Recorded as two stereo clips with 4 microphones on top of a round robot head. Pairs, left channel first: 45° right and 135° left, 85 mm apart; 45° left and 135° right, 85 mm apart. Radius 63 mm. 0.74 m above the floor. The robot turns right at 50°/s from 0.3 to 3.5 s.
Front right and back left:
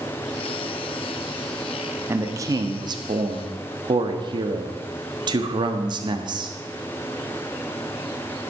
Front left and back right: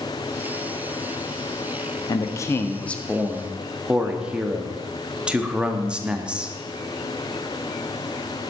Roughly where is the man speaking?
Left.